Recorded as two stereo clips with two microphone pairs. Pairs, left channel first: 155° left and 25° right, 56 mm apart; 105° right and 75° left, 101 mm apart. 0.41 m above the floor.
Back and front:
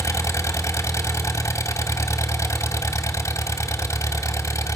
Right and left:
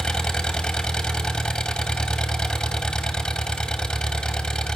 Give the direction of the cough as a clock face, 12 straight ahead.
I don't hear a cough.